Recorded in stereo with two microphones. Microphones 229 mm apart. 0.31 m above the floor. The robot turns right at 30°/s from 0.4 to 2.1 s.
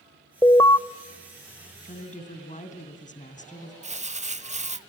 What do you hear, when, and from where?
0.4 s an alarm: 15° left (ahead or behind), 0.6 m; by 0.8 s 20° left (ahead or behind), 0.6 m
1.8 s a woman speaking: 40° left (ahead or behind), 2.5 m; by 3.7 s 30° left (ahead or behind), 2.5 m
3.8 s crumpling: 30° right (ahead or behind), 0.8 m